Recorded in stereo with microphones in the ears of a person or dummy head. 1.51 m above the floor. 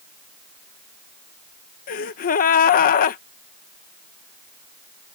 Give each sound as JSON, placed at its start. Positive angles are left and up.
{"t": 1.9, "sound": "a gasp", "side_deg": 40}